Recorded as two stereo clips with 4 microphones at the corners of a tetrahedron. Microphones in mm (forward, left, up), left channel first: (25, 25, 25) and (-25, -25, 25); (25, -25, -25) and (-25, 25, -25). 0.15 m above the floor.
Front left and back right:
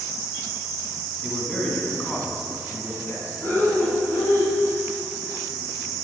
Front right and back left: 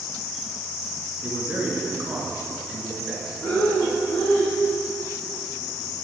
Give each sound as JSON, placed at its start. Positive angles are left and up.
{"t": 1.2, "sound": "a man speaking", "azimuth_deg": 125, "distance_m": 1.9}
{"t": 3.4, "sound": "breathing", "azimuth_deg": -10, "distance_m": 3.5}